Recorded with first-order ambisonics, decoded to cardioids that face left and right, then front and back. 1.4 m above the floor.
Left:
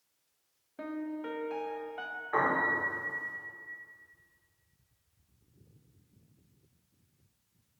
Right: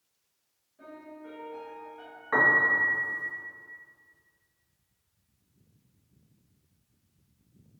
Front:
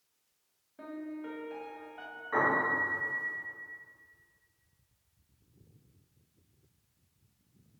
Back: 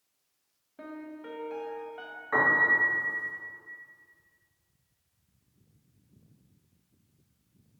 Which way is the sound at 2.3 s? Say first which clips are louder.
Right 7 dB, back 5 dB; 110° right.